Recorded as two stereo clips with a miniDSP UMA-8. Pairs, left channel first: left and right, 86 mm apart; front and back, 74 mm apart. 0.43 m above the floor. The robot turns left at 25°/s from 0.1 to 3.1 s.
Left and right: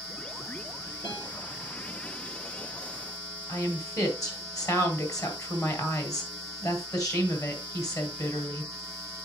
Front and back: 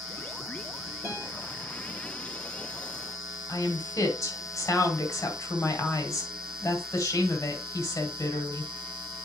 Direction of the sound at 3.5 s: 45° left.